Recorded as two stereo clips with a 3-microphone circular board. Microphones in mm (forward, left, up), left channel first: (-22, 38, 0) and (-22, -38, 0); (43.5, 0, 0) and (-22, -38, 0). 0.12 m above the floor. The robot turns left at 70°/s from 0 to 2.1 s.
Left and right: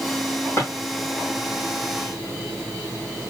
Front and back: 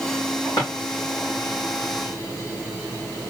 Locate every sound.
0.6 s a drawer: 40° left, 3.5 m; by 0.7 s 30° left, 3.5 m